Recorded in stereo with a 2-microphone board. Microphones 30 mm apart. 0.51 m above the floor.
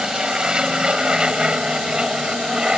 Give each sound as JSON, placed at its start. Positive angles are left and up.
{"t": 0.0, "sound": "an aircraft", "side_deg": -25}